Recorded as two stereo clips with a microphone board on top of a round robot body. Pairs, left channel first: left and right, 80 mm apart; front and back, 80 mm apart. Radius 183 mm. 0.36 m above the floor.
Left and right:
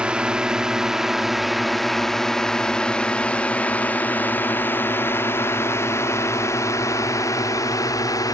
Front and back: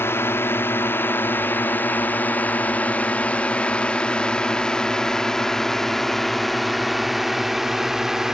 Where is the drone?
25° right; by 8.3 s 95° left.